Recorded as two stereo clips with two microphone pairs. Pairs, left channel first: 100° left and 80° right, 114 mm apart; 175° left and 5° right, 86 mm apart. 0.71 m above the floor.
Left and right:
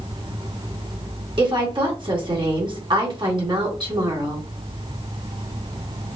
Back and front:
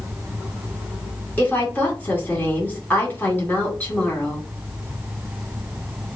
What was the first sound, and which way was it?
A woman speaking, 120° right.